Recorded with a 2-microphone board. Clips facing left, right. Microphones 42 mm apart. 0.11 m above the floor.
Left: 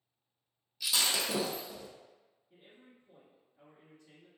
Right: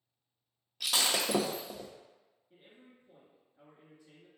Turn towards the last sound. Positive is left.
turn(degrees=-15)  # may be behind; listen again after turning